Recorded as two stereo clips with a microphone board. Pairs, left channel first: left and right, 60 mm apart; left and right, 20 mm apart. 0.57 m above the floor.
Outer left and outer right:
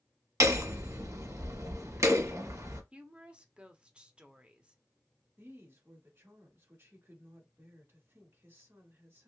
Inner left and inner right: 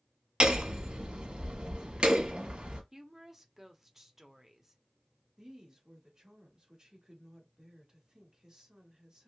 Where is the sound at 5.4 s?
45° right (ahead or behind), 1.3 m.